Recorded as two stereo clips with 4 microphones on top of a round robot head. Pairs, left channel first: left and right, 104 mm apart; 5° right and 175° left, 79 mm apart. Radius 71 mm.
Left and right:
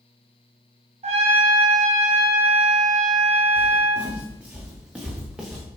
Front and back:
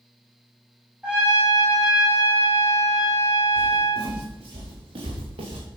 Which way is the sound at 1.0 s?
110° right.